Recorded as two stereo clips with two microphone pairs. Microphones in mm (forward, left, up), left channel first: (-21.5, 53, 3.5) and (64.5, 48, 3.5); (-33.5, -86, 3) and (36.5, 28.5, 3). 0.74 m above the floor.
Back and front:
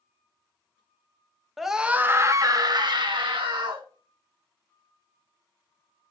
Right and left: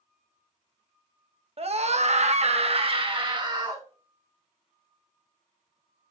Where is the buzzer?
I don't hear a buzzer.